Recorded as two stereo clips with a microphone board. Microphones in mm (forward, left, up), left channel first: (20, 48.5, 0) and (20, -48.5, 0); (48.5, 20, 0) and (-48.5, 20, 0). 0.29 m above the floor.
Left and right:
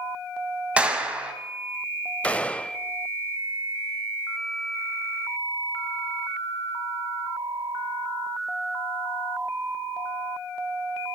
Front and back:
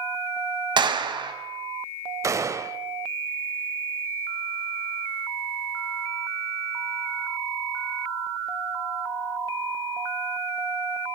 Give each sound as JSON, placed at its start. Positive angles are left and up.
{"t": 0.8, "sound": "a clap", "azimuth_deg": -165, "distance_m": 1.9}
{"t": 2.2, "sound": "a gunshot", "azimuth_deg": 160, "distance_m": 0.7}